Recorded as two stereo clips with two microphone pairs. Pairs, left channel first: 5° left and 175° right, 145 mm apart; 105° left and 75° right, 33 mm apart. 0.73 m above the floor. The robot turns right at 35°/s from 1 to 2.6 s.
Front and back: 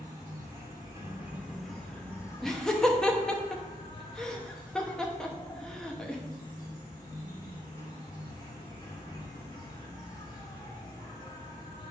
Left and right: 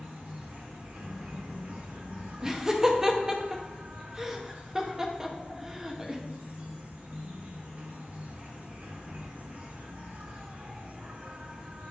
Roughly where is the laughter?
Right.